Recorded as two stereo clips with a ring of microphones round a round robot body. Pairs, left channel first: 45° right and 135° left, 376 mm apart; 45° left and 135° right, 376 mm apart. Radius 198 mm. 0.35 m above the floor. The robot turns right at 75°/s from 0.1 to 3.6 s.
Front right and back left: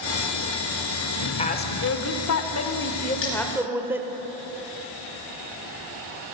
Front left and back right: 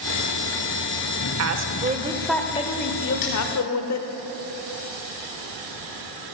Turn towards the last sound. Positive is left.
turn(degrees=40)